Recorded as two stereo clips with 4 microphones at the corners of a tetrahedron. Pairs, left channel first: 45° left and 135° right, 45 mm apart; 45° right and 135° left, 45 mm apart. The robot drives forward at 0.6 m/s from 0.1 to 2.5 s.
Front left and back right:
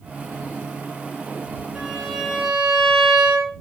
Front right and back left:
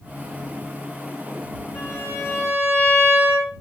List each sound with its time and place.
1.8 s a violin: 60° right, 4.5 m; by 3.5 s 65° right, 4.5 m